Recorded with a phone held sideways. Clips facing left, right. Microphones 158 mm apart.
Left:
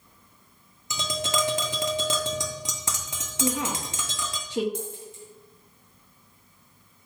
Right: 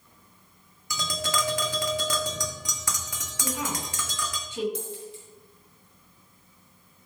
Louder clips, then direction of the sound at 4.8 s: Even; 50° left (ahead or behind).